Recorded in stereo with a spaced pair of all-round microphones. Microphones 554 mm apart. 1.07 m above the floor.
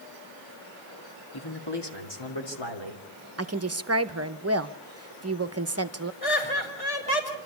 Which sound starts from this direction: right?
A woman speaking, at 3.4 s.